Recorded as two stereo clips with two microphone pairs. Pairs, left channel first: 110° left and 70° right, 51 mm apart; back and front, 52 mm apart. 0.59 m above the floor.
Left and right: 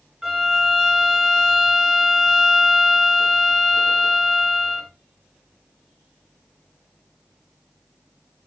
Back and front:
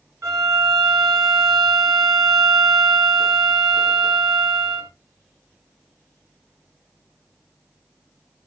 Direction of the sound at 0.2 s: 15° left.